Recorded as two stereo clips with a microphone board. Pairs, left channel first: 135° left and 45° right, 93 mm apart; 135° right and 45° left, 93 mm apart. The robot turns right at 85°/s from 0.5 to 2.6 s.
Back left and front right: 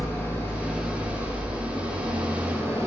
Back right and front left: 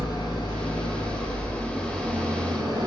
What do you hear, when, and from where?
0.0 s an engine running: 165° right, 1.0 m; by 2.9 s 15° left, 1.0 m